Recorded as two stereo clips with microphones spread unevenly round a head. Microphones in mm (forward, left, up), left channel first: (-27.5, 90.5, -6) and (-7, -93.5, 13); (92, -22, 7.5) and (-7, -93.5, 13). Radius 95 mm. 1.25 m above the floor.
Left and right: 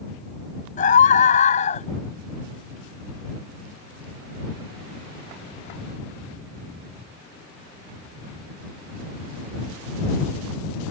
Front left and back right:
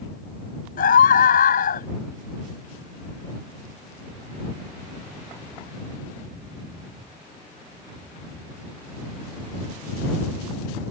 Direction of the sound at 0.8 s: 40° left.